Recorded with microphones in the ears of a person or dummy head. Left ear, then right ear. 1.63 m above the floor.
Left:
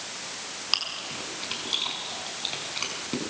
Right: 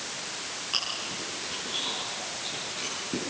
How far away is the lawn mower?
I don't hear a lawn mower.